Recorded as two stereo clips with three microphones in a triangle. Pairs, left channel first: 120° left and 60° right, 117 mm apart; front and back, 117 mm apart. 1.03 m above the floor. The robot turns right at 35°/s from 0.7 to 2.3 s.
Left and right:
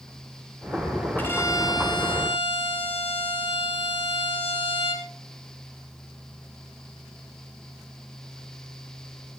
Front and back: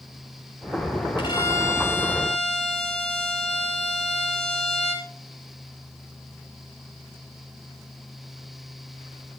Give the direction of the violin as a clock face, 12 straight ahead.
10 o'clock.